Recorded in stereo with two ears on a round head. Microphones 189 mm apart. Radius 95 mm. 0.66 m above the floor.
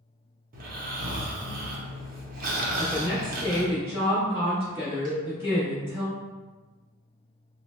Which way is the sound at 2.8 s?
10° right (ahead or behind).